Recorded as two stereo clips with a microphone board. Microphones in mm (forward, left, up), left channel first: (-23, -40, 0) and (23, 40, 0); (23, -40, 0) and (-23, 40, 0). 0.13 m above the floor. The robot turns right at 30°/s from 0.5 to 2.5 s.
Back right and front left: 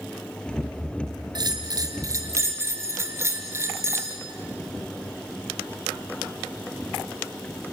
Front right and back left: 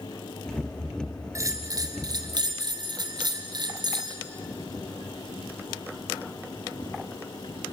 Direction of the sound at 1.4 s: 75° left.